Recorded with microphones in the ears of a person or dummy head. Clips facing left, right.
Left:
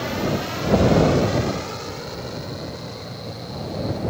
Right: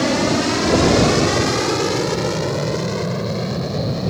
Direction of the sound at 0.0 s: 60° right (ahead or behind).